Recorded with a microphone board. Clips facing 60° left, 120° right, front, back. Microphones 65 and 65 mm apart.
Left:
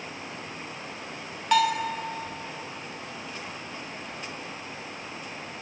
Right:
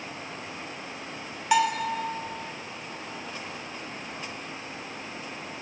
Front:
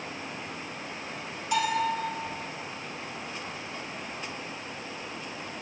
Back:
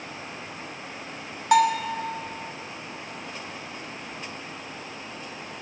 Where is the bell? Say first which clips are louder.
Left 1 dB, back 7 dB; 160° left, 0.9 m.